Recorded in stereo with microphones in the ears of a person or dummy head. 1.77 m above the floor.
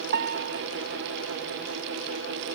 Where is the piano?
65° right (ahead or behind).